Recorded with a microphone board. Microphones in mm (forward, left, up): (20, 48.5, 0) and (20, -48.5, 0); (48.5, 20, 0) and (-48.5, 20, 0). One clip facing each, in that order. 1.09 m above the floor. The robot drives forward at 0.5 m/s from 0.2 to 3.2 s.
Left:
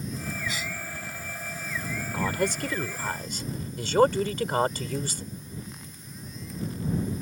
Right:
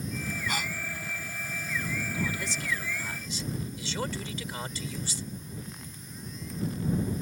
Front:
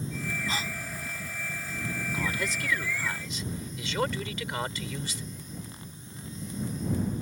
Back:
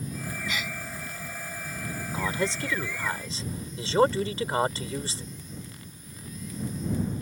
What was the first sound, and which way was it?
A gasp, 55° right.